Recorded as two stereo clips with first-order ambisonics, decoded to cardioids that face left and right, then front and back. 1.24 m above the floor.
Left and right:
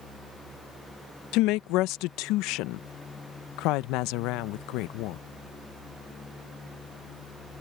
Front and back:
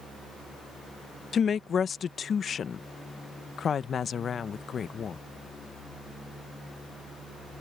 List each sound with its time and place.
1.3 s a woman speaking: 65° left